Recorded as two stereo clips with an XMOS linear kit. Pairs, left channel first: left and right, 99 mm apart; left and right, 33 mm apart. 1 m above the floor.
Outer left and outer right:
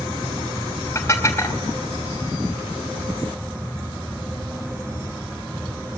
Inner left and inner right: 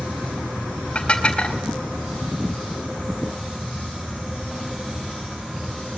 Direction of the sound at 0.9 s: 25° left (ahead or behind).